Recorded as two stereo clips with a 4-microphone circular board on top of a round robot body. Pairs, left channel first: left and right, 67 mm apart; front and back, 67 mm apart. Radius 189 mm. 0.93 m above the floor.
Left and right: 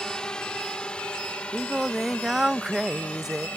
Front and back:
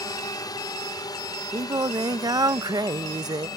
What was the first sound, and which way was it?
A drone, 10° left.